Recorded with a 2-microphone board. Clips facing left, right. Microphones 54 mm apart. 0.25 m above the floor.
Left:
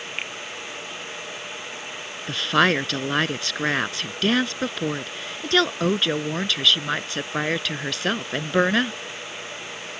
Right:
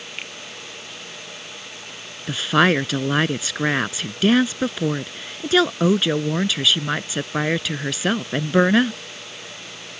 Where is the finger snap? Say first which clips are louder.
Left 3 dB; 20° left (ahead or behind).